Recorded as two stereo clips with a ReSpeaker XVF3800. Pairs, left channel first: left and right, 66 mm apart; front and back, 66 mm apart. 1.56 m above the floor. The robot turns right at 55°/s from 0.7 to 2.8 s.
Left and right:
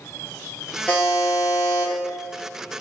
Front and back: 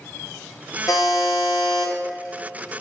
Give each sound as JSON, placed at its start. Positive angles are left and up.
{"t": 0.9, "sound": "a buzzer", "azimuth_deg": 20, "distance_m": 1.3}